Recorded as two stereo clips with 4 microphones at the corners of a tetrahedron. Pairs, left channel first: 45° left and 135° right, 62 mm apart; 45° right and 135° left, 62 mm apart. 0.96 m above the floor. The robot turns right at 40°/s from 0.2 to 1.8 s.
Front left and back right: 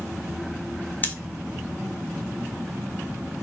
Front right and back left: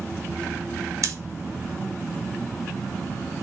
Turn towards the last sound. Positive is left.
turn(degrees=135)